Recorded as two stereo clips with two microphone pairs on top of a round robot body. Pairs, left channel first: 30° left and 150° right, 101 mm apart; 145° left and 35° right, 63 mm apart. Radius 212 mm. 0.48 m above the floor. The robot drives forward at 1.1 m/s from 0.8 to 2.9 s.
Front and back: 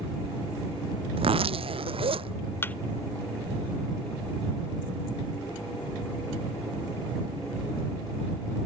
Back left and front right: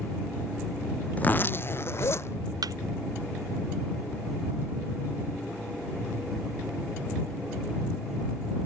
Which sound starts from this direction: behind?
A zipper, at 1.2 s.